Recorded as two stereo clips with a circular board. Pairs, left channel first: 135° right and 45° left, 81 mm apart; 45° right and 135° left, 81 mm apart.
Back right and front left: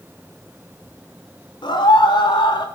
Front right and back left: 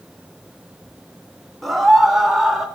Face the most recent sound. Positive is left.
turn(degrees=-140)